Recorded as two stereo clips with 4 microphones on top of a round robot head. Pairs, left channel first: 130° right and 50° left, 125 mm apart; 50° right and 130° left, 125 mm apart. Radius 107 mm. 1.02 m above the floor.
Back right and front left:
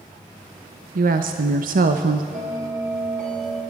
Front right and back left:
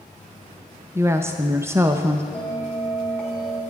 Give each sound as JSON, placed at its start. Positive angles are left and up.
{"t": 0.9, "sound": "a woman speaking", "azimuth_deg": 60, "distance_m": 0.7}
{"t": 2.3, "sound": "a bell", "azimuth_deg": 30, "distance_m": 4.0}